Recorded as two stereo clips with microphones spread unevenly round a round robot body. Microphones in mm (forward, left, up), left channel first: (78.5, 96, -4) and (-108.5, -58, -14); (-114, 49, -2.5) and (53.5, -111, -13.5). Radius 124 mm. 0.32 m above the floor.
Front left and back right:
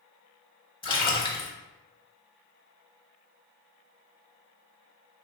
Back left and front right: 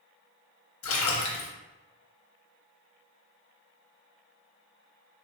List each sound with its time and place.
0.8 s a splash: 110° left, 0.7 m